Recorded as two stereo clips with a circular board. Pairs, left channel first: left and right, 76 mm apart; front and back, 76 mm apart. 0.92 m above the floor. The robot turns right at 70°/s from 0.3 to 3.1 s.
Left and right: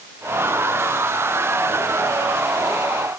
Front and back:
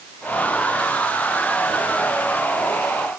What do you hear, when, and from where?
Only background noise.